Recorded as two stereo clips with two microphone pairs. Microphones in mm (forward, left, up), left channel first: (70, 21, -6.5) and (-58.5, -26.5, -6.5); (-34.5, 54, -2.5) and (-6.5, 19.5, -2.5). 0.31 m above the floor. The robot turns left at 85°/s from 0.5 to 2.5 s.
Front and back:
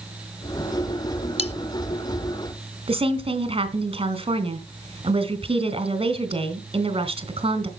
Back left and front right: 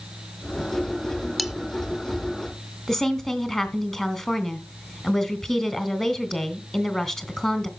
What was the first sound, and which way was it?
Cutlery clinking, 45° left.